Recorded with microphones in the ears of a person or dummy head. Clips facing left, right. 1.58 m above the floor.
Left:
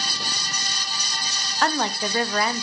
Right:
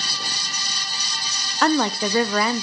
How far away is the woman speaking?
About 0.6 m.